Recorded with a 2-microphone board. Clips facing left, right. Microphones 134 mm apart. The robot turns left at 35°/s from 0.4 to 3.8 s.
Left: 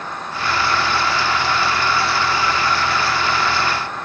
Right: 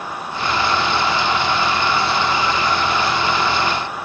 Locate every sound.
Only background noise.